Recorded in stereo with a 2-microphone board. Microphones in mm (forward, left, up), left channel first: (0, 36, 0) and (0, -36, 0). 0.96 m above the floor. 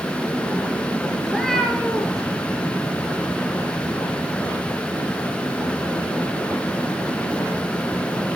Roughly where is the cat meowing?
Centre.